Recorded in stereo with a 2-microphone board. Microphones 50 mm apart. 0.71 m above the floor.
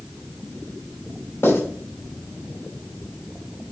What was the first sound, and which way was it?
Writing, 65° left (ahead or behind).